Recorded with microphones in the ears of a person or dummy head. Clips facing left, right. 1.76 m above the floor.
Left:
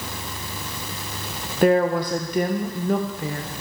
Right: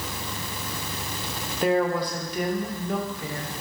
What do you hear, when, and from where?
1.6 s a woman speaking: 35° left (ahead or behind), 0.5 m